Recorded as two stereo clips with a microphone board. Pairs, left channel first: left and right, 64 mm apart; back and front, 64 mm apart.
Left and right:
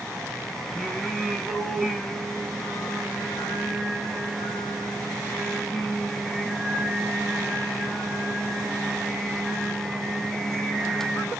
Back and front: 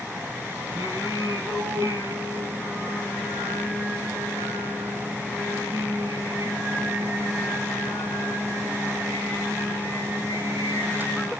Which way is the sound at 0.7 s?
5° left.